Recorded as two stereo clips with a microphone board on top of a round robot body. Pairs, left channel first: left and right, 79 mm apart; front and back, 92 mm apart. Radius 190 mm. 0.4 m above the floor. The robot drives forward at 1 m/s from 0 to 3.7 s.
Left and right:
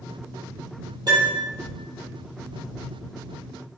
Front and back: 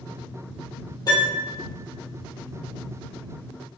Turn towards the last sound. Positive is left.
turn(degrees=-110)